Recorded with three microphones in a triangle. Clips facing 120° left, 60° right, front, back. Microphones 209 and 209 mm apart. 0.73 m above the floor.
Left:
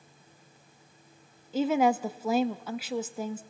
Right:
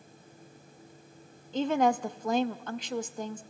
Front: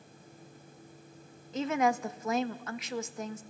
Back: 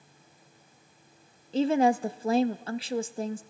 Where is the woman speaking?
165° right, 0.5 m.